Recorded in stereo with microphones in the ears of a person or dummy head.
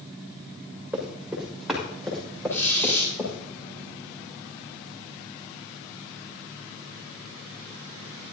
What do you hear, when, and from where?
0.9 s running footsteps: 10° right (ahead or behind), 6.5 m; by 3.4 s 10° left (ahead or behind), 6.5 m
2.5 s a squeak: 10° left (ahead or behind), 9 m